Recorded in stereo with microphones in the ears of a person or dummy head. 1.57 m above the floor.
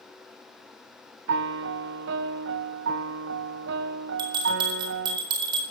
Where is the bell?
30° right (ahead or behind), 4 m.